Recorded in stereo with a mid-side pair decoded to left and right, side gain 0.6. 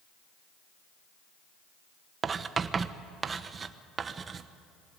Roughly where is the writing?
Ahead right.